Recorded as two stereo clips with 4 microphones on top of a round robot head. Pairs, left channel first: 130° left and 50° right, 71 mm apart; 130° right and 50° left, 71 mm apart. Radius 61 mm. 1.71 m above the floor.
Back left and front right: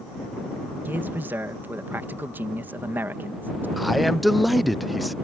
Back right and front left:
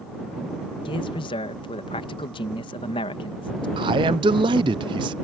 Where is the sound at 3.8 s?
35° left.